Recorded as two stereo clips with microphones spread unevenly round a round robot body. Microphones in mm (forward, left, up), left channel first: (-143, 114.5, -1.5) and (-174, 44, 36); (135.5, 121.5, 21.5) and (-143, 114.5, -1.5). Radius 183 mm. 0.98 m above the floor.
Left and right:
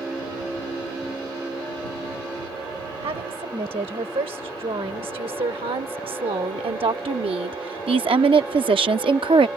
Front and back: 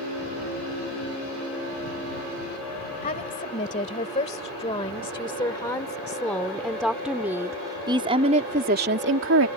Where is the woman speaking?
70° right; by 9.5 s 130° right.